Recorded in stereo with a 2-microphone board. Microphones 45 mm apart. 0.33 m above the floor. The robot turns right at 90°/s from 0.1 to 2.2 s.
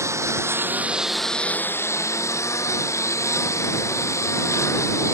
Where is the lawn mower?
95° right; by 5.2 s 95° left.